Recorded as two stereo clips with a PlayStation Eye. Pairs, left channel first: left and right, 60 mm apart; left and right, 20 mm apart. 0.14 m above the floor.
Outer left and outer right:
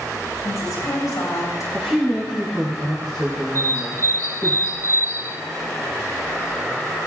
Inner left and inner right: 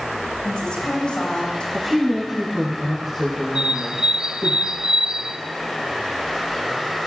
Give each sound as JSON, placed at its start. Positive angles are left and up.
{"t": 0.4, "sound": "a woman speaking", "side_deg": 80, "distance_m": 7.5}
{"t": 1.7, "sound": "a woman speaking", "side_deg": 10, "distance_m": 6.5}
{"t": 3.5, "sound": "a bird", "side_deg": -55, "distance_m": 0.5}